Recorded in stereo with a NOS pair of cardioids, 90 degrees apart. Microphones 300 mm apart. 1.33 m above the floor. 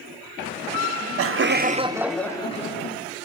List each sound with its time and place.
0.8 s laughter: 65° right, 0.7 m; by 3.0 s 35° left, 0.8 m